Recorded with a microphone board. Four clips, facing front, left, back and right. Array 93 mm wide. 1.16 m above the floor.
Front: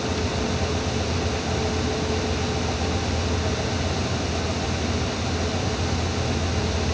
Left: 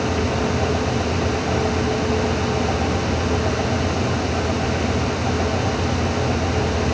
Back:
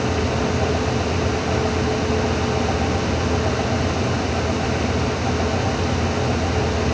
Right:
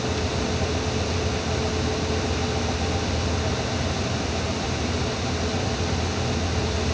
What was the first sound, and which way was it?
Only background noise.